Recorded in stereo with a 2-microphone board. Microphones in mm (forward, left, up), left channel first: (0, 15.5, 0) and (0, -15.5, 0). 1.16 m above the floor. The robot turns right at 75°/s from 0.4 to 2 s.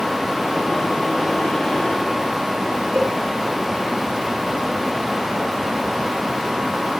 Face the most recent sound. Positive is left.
turn(degrees=10)  # may be behind; listen again after turning